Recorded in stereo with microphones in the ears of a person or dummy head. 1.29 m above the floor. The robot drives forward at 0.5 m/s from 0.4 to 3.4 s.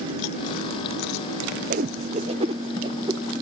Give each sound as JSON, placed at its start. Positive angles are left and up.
{"t": 1.7, "sound": "a whoosh", "side_deg": -45, "distance_m": 0.7}